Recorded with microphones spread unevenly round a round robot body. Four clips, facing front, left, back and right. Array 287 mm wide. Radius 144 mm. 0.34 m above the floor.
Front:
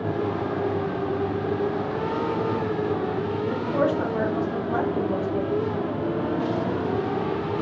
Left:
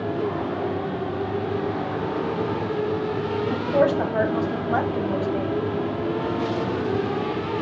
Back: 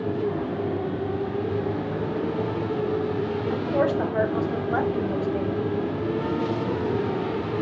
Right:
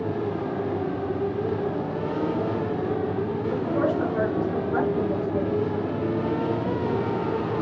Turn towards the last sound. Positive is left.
turn(degrees=130)